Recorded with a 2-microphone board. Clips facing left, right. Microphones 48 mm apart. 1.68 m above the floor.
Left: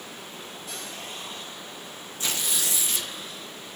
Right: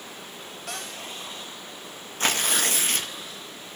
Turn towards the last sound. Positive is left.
turn(degrees=-65)  # may be behind; listen again after turning